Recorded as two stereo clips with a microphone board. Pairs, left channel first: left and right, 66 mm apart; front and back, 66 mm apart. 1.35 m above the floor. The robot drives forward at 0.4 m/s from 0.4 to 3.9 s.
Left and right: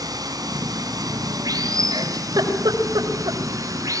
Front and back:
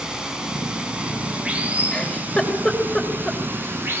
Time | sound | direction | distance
0.0 | running water | 100° right | 3 m
1.9 | a giggle | 75° right | 4.5 m